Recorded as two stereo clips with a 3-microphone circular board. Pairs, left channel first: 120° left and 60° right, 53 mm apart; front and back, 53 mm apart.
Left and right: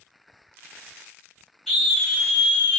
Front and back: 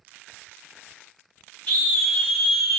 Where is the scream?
30° left, 1.3 m; by 2.8 s 90° left, 1.3 m.